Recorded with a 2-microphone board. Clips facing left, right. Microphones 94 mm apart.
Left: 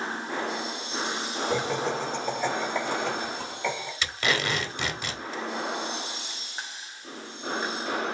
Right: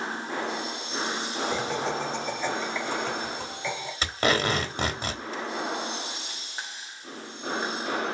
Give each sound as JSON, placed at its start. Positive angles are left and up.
{"t": 1.5, "sound": "laughter", "side_deg": 45, "distance_m": 1.9}
{"t": 4.0, "sound": "tape being pulled", "side_deg": -35, "distance_m": 0.8}